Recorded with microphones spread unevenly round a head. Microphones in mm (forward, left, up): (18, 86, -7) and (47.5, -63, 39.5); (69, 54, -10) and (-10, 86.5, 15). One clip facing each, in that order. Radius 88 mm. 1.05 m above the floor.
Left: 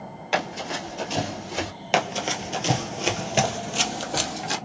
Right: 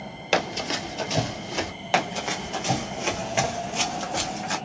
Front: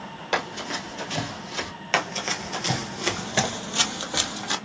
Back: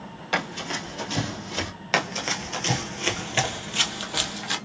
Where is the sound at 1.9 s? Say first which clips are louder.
Left 1 dB, even; straight behind, 1.1 m; by 4.5 s 45° left, 1.6 m.